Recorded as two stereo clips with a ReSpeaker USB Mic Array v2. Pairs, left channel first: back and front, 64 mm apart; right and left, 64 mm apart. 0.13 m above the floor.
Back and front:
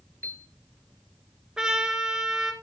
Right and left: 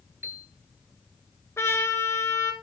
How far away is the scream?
No scream in this recording.